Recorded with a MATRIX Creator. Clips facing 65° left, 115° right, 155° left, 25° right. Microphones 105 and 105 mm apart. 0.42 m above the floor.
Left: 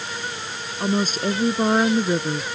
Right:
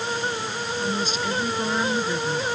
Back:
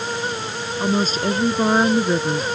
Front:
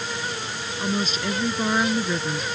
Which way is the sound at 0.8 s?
105° left.